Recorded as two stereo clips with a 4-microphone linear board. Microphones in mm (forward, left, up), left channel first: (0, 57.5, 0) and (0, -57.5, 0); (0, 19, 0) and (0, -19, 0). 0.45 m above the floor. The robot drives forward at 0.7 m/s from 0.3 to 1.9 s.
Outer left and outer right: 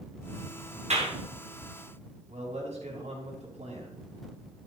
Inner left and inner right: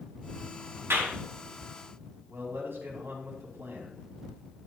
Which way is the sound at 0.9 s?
75° right (ahead or behind).